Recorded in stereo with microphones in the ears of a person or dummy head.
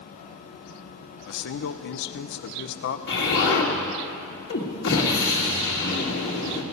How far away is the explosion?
About 2 m.